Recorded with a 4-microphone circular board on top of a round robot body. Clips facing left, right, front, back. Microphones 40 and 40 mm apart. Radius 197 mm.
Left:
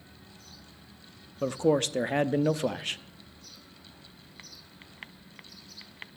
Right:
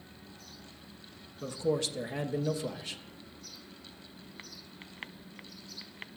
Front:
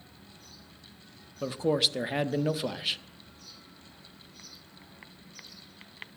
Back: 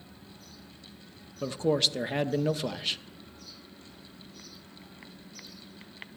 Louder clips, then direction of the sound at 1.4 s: Left 6 dB, even; 80° left.